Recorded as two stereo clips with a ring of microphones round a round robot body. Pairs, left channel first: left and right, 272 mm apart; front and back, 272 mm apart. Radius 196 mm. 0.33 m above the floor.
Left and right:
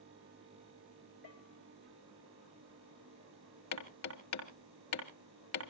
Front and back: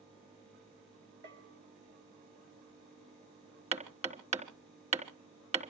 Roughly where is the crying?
I don't hear crying.